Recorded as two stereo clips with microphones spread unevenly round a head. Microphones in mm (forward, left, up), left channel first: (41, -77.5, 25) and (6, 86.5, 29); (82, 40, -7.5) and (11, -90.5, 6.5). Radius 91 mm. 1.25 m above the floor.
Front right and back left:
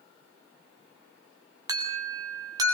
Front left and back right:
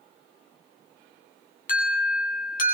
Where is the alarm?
35° left, 8 m.